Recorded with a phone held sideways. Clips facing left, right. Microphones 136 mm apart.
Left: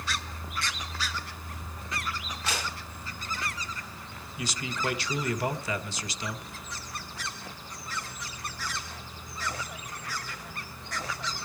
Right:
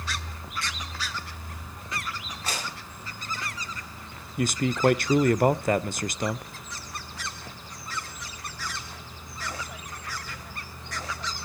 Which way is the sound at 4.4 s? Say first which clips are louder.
Right 10 dB; 50° right (ahead or behind).